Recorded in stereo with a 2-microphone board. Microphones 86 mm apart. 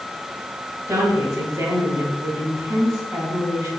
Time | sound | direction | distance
0.9 | a woman speaking | 35° right (ahead or behind) | 3 m